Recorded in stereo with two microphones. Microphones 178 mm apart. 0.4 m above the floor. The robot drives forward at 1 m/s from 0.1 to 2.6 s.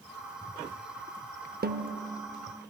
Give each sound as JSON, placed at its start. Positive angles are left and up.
{"t": 1.6, "sound": "a snare drum", "side_deg": -60, "distance_m": 0.5}